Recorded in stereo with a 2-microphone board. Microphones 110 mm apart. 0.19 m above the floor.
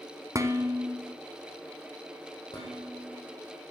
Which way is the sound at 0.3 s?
30° right (ahead or behind).